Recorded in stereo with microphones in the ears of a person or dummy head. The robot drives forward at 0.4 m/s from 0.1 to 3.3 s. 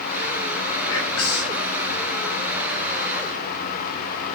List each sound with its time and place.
0.9 s whispering: 75° left (ahead or behind), 1.1 m; by 1.6 s 80° left, 1.0 m